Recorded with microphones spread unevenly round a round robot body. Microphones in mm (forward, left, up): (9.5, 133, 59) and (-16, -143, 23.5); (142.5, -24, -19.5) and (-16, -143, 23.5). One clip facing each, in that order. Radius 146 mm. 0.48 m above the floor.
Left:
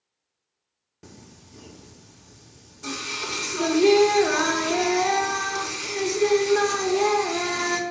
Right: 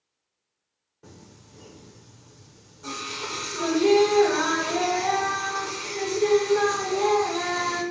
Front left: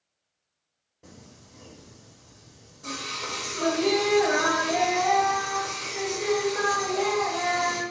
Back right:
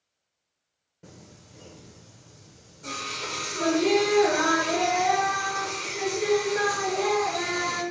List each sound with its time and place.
1.0 s singing: 135° left, 0.6 m